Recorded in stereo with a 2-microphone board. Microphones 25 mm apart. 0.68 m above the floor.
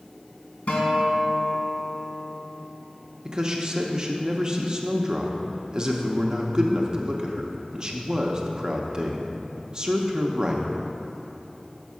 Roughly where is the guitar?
Left.